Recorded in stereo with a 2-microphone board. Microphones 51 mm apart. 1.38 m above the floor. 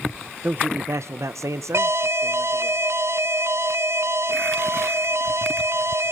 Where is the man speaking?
40° right (ahead or behind), 1.1 m; by 2.7 s 65° right (ahead or behind), 2 m.